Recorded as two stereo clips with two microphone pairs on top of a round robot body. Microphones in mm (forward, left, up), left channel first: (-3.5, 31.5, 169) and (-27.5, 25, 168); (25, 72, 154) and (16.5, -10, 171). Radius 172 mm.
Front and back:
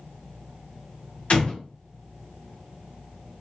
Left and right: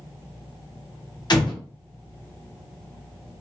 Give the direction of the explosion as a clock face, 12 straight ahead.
10 o'clock.